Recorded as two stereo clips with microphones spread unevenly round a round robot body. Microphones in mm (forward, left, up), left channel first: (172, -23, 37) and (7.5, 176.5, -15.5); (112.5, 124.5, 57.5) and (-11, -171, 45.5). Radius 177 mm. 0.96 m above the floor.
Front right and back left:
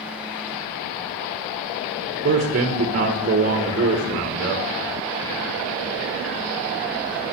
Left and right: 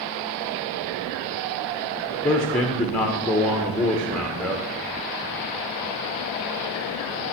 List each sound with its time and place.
2.2 s a man speaking: 155° left, 0.8 m